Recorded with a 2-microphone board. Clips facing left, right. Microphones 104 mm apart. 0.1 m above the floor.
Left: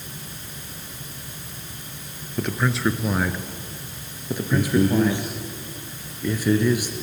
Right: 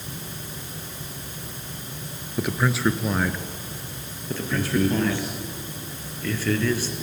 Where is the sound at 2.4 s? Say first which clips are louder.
Even; 5° right (ahead or behind), 1.6 m; by 5.3 s 20° left (ahead or behind), 2.5 m.